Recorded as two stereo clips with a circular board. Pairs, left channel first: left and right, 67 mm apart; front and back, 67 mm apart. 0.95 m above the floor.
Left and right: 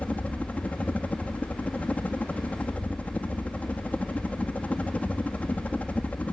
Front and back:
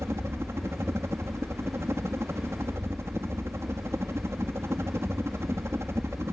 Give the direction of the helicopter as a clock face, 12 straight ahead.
7 o'clock.